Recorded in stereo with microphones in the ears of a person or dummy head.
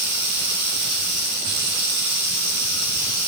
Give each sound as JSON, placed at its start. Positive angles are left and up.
{"t": 0.0, "sound": "running water", "side_deg": -45, "distance_m": 1.4}